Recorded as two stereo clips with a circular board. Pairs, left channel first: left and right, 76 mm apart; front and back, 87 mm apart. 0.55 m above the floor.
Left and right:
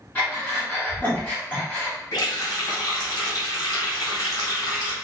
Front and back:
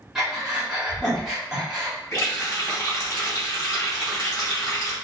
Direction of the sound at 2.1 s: 55° left.